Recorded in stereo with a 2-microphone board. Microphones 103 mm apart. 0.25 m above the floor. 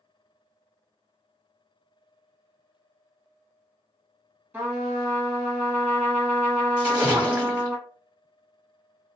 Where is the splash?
10° right (ahead or behind), 1.4 m.